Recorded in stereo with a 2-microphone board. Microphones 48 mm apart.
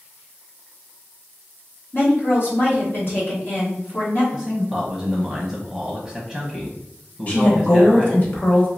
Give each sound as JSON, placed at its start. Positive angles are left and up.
{"t": 1.9, "sound": "a woman speaking", "side_deg": 50, "distance_m": 1.3}
{"t": 4.3, "sound": "a man speaking", "side_deg": -10, "distance_m": 0.6}
{"t": 7.3, "sound": "a woman speaking", "side_deg": 40, "distance_m": 1.1}